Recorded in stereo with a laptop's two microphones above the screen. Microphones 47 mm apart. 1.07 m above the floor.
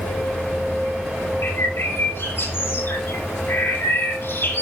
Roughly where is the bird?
Left.